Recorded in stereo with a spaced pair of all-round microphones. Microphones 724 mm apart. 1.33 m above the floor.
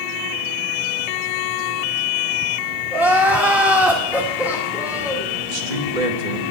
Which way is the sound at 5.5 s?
85° right.